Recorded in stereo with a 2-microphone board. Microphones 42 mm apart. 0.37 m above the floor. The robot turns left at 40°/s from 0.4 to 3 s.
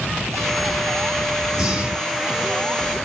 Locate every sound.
1.5 s breathing: 10° right (ahead or behind), 0.8 m; by 2.3 s 40° right (ahead or behind), 0.8 m